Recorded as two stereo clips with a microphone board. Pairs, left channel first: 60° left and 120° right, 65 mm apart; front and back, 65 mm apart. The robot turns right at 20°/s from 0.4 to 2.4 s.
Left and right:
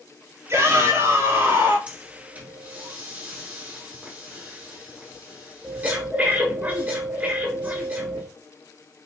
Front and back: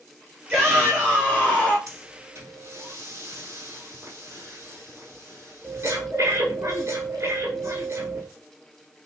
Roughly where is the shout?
Behind right.